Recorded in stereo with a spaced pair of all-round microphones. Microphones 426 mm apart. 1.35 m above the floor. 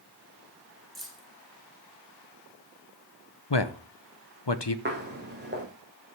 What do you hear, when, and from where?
0.9 s keys jangling: centre (ahead or behind), 4 m
3.5 s a man speaking: 70° left (ahead or behind), 1.1 m
4.8 s footsteps: 25° right (ahead or behind), 4.5 m